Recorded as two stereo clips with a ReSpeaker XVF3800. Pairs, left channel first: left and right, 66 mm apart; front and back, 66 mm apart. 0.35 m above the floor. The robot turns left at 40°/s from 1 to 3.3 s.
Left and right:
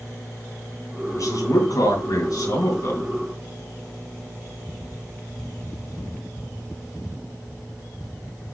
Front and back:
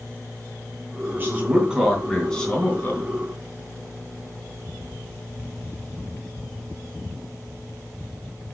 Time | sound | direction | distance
1.1 | a man speaking | 125° left | 3 m